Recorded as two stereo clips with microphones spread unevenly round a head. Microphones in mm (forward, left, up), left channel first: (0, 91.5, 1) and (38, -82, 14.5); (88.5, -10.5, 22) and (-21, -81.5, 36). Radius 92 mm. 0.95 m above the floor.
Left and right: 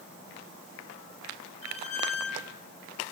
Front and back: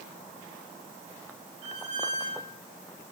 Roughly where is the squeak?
Behind.